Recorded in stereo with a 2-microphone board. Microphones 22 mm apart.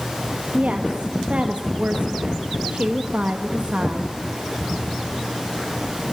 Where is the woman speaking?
75° right (ahead or behind), 1.6 m.